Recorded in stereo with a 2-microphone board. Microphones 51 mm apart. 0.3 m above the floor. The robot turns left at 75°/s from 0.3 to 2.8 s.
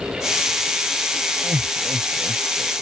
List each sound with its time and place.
1.4 s laughter: 40° right (ahead or behind); by 2.7 s 10° left (ahead or behind)